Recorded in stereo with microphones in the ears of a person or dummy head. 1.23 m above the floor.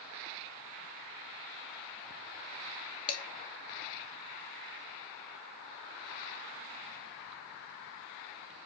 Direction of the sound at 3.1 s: 30° left (ahead or behind).